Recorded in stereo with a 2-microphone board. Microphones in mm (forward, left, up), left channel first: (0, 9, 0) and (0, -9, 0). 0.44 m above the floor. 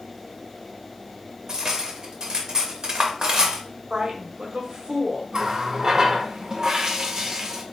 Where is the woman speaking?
45° right (ahead or behind), 1.5 m.